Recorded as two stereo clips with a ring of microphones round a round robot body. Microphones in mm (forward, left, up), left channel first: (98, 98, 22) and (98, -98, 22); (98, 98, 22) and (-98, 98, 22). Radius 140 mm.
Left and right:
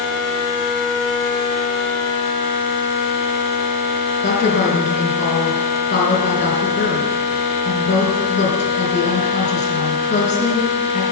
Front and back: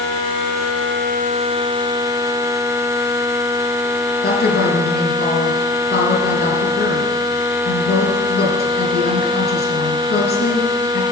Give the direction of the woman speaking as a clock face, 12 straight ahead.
11 o'clock.